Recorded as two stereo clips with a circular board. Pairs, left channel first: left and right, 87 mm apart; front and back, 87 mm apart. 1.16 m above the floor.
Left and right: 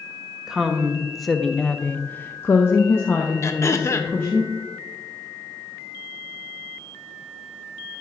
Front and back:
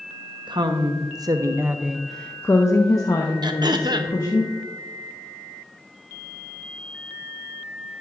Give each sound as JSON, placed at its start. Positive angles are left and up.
{"t": 0.5, "sound": "a woman speaking", "azimuth_deg": -170, "distance_m": 1.0}
{"t": 3.4, "sound": "throat clearing", "azimuth_deg": 145, "distance_m": 0.7}